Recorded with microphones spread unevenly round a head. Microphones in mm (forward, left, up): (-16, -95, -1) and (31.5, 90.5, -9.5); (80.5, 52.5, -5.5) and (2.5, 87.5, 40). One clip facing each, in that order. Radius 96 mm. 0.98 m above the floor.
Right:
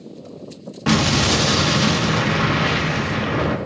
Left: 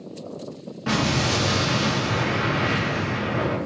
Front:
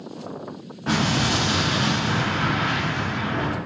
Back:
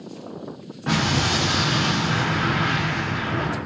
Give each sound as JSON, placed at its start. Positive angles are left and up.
{"t": 0.9, "sound": "an explosion", "azimuth_deg": -120, "distance_m": 0.6}